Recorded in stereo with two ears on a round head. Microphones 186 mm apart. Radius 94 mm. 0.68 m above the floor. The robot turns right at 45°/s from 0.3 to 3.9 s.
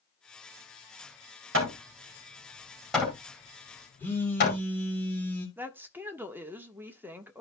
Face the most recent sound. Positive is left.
turn(degrees=-10)  # may be behind; listen again after turning